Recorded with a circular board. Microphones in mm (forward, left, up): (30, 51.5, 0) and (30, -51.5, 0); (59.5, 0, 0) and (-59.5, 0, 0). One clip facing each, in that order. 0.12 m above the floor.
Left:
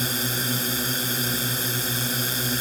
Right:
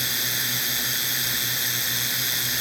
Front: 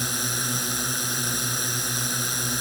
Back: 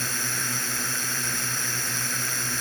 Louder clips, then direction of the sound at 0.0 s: Left 5 dB, front 2 dB; 65° left.